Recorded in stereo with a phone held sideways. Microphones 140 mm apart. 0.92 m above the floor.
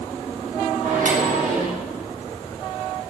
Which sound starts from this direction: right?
A microwave, at 0.8 s.